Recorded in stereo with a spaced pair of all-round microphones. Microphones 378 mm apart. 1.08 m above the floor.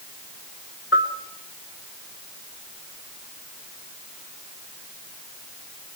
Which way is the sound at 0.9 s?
35° left (ahead or behind).